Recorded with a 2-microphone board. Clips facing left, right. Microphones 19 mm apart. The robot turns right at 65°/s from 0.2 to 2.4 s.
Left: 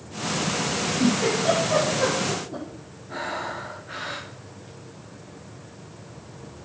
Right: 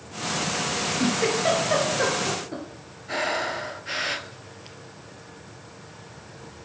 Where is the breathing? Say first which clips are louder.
Right 4 dB; 80° right, 1.4 m.